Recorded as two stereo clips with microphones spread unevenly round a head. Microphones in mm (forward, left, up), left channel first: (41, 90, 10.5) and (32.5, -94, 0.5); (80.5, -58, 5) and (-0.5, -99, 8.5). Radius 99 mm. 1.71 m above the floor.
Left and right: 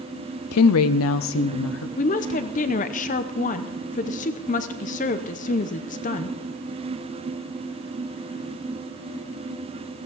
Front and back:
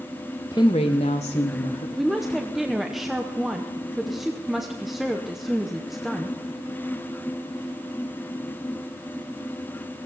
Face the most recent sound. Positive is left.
turn(degrees=120)